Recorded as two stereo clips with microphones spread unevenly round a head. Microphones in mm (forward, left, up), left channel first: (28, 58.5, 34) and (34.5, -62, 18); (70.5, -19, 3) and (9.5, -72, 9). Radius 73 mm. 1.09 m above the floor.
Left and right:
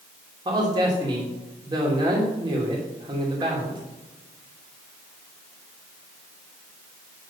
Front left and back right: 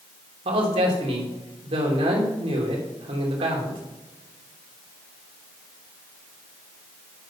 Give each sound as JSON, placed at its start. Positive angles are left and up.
{"t": 0.5, "sound": "a man speaking", "azimuth_deg": -150, "distance_m": 3.0}